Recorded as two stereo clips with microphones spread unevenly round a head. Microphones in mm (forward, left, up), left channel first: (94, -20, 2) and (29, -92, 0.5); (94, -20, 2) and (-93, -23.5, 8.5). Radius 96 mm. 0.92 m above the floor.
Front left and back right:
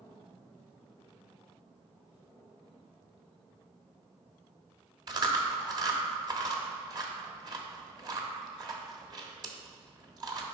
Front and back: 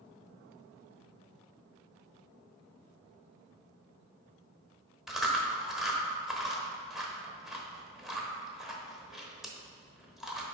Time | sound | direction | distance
5.1 | chewing | 95° right | 1.0 m